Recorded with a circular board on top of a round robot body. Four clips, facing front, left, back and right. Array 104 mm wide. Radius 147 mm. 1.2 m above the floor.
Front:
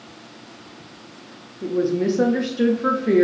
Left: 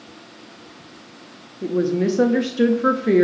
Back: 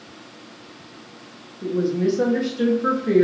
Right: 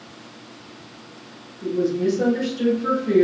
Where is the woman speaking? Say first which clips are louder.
Left 1 dB, front 1 dB; 75° left, 0.5 m.